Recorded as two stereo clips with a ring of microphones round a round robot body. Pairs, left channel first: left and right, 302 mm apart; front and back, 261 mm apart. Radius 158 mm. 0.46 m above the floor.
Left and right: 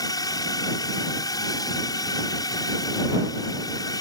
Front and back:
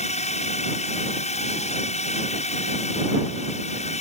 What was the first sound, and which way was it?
A drone, 25° left.